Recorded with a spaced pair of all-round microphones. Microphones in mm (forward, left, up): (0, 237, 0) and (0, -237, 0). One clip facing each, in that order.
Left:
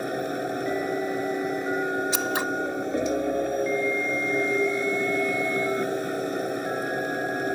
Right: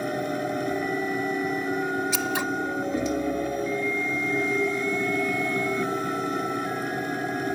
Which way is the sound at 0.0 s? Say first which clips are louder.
Even; 15° right (ahead or behind).